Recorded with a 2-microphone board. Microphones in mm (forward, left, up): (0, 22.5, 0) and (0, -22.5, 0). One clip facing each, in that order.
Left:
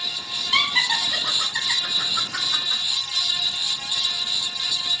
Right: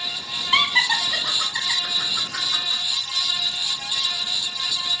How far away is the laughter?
About 1.7 m.